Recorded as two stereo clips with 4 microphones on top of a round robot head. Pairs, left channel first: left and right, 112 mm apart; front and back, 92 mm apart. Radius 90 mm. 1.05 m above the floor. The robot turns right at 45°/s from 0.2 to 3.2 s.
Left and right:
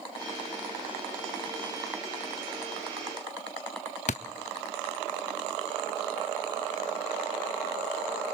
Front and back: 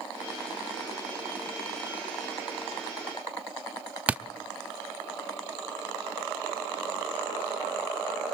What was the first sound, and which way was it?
A thud, 110° left.